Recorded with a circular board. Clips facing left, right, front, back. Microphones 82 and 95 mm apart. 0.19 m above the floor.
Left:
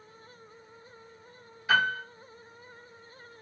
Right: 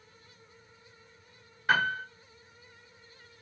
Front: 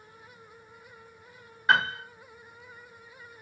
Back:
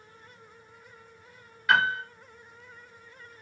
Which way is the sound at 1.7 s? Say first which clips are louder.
Left 1 dB, back 1 dB; 60° right.